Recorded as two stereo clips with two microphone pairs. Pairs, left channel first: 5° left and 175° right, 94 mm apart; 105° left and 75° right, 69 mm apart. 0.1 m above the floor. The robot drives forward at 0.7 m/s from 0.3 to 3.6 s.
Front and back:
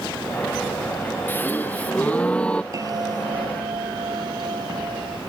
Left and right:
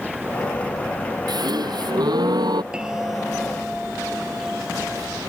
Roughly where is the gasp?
Ahead right.